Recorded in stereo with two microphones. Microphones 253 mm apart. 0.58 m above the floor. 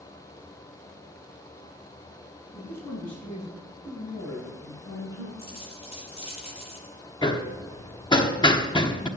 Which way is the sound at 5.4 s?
20° left (ahead or behind).